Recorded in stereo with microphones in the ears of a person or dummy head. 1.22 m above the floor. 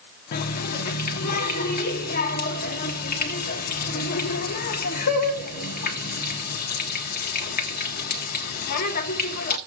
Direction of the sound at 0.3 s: 50° left (ahead or behind).